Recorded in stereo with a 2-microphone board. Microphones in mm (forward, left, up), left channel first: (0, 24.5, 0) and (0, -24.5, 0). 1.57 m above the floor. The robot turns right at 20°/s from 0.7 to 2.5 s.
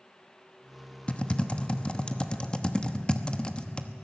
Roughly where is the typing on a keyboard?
Left.